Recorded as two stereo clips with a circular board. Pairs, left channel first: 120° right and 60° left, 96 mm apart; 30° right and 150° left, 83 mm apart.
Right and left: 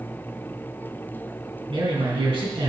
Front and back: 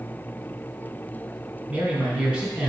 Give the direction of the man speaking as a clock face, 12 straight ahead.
10 o'clock.